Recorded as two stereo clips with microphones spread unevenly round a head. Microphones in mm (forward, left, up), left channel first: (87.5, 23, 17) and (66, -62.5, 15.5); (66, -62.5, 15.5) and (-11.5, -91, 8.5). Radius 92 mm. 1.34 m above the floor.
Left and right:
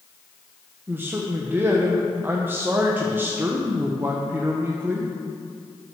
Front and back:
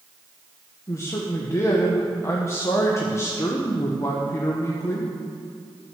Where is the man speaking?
40° right, 1.2 m.